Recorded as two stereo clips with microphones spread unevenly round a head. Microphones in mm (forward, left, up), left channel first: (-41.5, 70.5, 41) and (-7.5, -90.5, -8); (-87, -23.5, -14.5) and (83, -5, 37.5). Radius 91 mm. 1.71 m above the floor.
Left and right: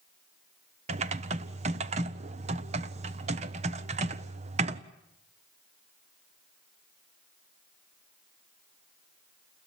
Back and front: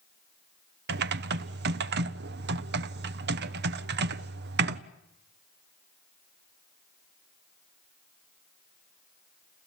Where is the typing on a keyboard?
20° right, 0.9 m.